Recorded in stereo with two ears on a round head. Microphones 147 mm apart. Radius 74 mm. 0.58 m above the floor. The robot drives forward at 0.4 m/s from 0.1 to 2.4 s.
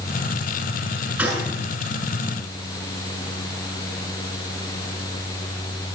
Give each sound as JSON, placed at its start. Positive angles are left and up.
{"t": 1.2, "sound": "a gunshot", "side_deg": -10, "distance_m": 7.0}